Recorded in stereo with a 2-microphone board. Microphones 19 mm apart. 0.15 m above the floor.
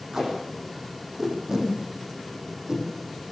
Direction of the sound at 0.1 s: 25° right (ahead or behind).